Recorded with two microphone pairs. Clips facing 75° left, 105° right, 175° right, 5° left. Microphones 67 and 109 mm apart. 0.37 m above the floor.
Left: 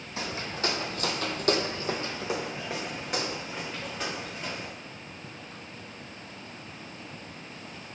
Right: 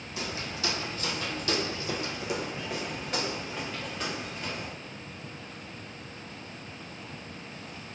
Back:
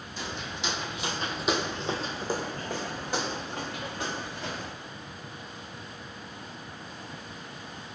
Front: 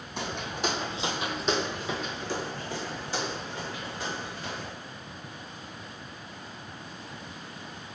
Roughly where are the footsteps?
Ahead.